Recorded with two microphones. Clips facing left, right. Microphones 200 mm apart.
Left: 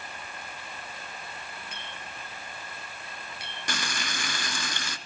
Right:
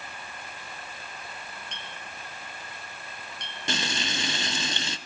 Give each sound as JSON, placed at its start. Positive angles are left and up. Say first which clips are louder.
{"t": 1.7, "sound": "a clink", "louder": "even", "side_deg": 5, "distance_m": 2.0}
{"t": 3.7, "sound": "frying", "louder": "right 4 dB", "side_deg": -25, "distance_m": 0.7}